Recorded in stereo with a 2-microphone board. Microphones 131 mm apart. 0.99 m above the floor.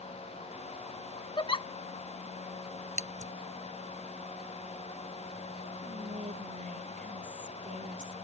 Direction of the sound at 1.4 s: 40° left (ahead or behind).